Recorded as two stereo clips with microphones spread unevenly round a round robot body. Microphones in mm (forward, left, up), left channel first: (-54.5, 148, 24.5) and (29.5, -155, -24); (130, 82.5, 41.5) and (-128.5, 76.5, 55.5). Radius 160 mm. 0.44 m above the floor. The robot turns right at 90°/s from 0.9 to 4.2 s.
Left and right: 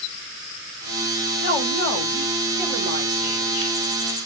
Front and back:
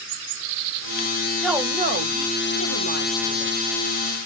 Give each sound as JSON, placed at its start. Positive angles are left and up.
{"t": 1.4, "sound": "a woman speaking", "azimuth_deg": 85, "distance_m": 2.0}